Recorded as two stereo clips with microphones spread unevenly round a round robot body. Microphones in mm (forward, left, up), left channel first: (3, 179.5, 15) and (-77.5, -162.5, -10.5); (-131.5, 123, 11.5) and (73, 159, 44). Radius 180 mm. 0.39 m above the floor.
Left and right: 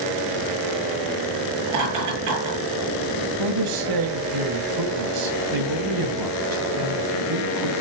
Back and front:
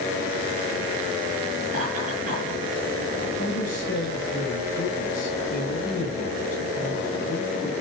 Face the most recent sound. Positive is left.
turn(degrees=-115)